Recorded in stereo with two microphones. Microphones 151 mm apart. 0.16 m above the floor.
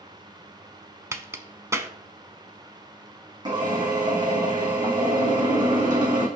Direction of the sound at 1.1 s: 20° right (ahead or behind).